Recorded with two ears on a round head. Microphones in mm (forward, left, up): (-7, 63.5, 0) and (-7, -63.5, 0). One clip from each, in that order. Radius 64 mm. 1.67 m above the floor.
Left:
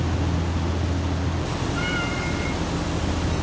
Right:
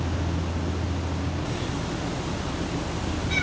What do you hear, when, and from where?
Only background noise.